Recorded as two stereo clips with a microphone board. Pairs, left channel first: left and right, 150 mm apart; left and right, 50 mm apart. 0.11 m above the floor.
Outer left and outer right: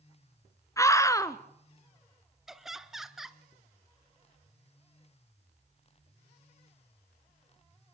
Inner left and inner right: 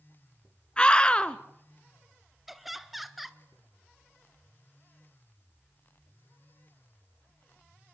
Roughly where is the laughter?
Centre.